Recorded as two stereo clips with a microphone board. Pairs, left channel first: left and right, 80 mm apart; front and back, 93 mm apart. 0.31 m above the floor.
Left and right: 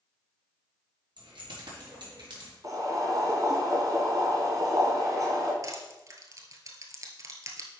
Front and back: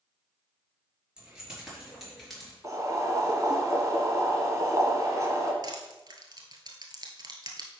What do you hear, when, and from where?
1.2 s keys jangling: 100° right, 4.5 m; by 2.5 s 85° right, 4 m
2.6 s boiling: 130° right, 1.9 m
5.6 s crushing: 135° right, 1.5 m